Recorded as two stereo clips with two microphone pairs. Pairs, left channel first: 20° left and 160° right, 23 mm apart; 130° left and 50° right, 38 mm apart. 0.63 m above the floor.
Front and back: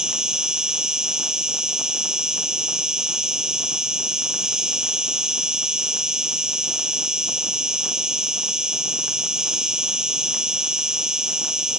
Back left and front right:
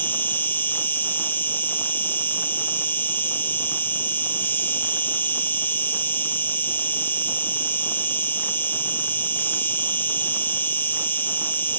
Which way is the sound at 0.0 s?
145° left.